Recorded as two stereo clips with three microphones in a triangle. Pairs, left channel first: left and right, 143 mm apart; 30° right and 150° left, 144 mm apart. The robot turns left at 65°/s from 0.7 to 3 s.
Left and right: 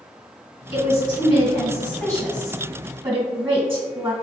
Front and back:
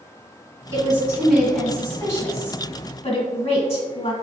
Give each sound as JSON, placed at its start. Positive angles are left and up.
{"t": 0.7, "sound": "a woman speaking", "azimuth_deg": 115, "distance_m": 1.7}